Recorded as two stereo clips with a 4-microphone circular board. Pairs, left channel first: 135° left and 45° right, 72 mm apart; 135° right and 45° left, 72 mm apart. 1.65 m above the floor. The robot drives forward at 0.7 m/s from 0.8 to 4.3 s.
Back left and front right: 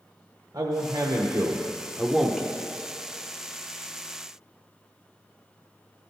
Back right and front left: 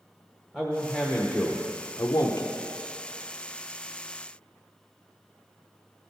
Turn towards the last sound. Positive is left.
turn(degrees=-170)